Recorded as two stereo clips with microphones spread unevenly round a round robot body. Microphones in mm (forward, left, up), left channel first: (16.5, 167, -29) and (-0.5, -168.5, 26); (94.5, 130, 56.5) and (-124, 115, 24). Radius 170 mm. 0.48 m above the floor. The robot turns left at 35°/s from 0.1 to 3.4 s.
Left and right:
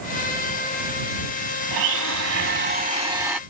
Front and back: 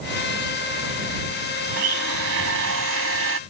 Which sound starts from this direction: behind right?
A blender, at 1.7 s.